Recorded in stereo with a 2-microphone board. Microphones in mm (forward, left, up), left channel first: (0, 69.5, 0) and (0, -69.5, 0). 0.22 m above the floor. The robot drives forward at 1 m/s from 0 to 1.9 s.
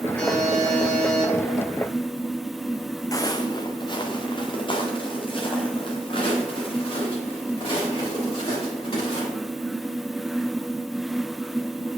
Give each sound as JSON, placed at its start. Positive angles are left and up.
{"t": 0.2, "sound": "a buzzer", "side_deg": -60, "distance_m": 2.5}
{"t": 3.1, "sound": "footsteps", "side_deg": 25, "distance_m": 0.6}